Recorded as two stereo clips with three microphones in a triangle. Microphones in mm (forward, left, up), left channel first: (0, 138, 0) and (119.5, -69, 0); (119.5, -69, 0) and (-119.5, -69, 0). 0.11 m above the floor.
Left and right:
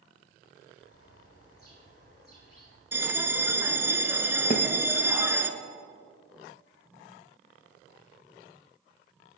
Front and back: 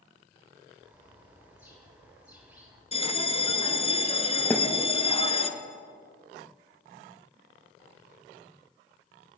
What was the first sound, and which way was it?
A bird, 100° left.